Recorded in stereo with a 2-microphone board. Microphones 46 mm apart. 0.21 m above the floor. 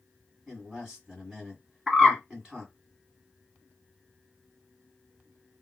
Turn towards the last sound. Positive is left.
turn(degrees=-5)  # may be behind; listen again after turning